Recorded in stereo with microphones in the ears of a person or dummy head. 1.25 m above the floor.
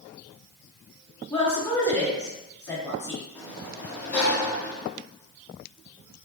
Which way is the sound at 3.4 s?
5° left (ahead or behind).